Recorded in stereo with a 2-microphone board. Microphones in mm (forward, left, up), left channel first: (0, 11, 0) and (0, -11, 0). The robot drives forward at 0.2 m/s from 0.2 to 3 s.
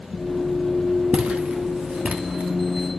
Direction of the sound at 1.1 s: 90° right.